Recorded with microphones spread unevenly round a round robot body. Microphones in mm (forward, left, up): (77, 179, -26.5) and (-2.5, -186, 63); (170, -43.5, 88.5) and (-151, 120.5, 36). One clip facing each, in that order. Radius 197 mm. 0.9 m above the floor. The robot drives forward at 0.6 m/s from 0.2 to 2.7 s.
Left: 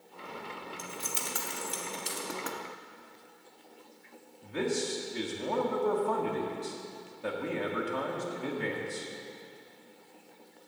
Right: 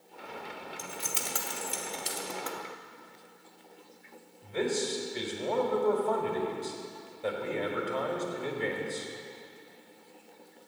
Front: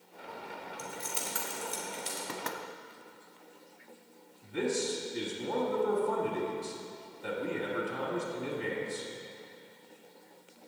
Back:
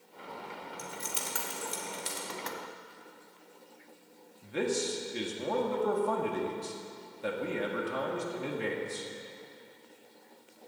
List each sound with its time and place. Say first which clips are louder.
0.8 s keys jangling: even, front 2 dB; 150° right, 1.3 m; by 2.2 s 165° right, 2 m
2.3 s knocking: left 2 dB, front 2 dB; 10° left, 1.0 m
4.4 s a man speaking: right 1 dB, even; 150° left, 1.7 m